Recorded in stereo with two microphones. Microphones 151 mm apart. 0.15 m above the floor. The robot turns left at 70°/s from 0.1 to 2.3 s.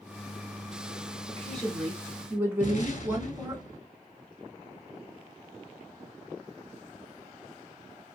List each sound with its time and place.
1.3 s a woman speaking: 15° left (ahead or behind), 1.1 m; by 3.6 s 15° right (ahead or behind), 1.1 m
2.6 s an explosion: 60° left (ahead or behind), 0.5 m